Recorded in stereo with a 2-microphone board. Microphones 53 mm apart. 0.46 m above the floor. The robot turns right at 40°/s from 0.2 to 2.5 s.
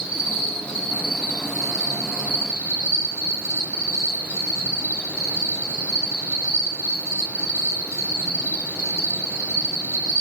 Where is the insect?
5° right, 1.4 m; by 10.2 s 85° left, 1.4 m.